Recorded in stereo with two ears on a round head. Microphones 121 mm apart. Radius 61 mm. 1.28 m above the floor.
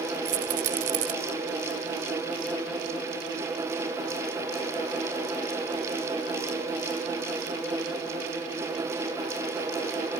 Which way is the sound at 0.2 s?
60° right (ahead or behind).